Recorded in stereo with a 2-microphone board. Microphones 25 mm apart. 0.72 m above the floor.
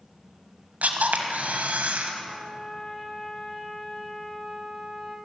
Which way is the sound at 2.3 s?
35° left (ahead or behind).